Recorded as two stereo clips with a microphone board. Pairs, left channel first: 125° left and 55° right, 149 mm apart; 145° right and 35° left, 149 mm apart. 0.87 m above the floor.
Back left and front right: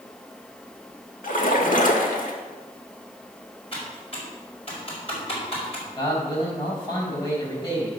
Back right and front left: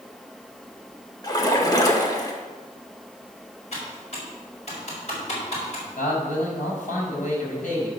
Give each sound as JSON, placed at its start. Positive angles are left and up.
{"t": 1.2, "sound": "a splash", "azimuth_deg": 150, "distance_m": 1.6}
{"t": 3.7, "sound": "typing on a keyboard", "azimuth_deg": 175, "distance_m": 4.5}
{"t": 6.0, "sound": "a man speaking", "azimuth_deg": 180, "distance_m": 5.0}